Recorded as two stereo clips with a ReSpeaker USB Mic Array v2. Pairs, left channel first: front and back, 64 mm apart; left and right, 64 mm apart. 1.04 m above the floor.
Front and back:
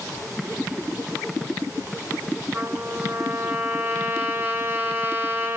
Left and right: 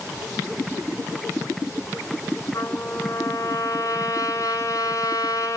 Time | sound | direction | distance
2.5 | a trumpet | 120° left | 5.5 m